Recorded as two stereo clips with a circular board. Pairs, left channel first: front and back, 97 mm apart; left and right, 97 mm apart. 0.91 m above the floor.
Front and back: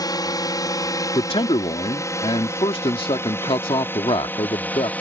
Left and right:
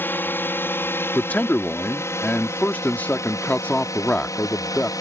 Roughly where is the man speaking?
Ahead.